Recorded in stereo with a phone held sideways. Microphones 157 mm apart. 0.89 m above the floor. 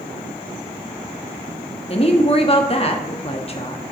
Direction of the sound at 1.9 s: 40° left (ahead or behind).